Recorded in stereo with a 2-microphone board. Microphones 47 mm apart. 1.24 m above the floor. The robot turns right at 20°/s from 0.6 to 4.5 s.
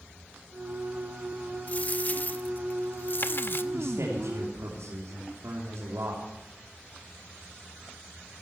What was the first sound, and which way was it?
A dropped coin, 45° left.